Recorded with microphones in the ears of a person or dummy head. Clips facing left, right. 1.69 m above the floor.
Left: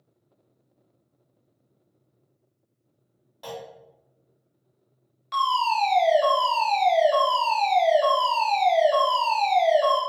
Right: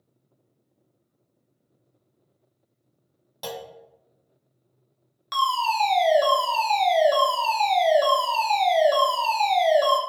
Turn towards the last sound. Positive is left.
turn(degrees=-65)  # may be behind; listen again after turning